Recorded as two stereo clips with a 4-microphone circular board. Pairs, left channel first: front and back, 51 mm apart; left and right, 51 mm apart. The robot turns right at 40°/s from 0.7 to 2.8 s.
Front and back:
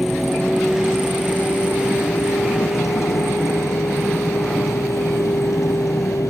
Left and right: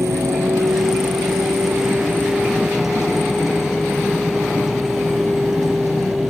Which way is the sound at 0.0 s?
95° right.